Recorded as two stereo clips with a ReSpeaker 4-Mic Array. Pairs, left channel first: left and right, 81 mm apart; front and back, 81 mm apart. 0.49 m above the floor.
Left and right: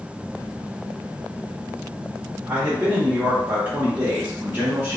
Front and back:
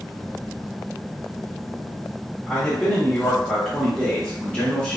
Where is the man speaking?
65° right, 0.7 m.